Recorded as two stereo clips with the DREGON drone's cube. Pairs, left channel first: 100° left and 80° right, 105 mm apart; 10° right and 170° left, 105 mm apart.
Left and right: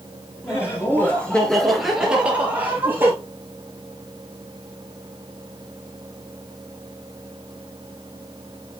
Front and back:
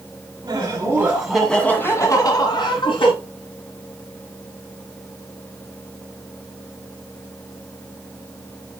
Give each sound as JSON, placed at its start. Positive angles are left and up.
{"t": 0.4, "sound": "laughter", "azimuth_deg": 150, "distance_m": 2.0}